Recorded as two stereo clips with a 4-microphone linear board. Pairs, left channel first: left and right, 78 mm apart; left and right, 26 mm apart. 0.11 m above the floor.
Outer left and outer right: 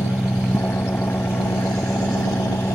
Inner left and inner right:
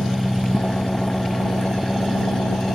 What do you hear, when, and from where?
0.0 s an engine running: 30° left (ahead or behind)